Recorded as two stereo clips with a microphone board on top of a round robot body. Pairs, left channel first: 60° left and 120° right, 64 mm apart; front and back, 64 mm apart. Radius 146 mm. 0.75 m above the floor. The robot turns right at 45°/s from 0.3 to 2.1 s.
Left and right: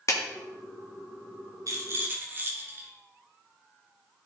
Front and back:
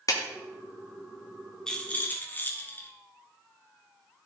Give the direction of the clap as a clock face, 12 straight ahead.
11 o'clock.